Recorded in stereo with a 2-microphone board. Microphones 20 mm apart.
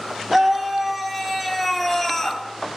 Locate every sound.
0.3 s a scream: 10° right (ahead or behind), 3.5 m; by 2.4 s 20° left (ahead or behind), 3 m